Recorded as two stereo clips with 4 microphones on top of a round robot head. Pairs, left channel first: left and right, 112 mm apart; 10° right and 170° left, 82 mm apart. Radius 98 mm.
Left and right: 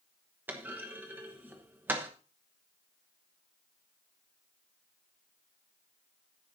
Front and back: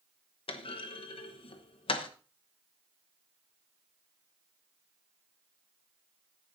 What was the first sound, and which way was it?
A clunk, 15° right.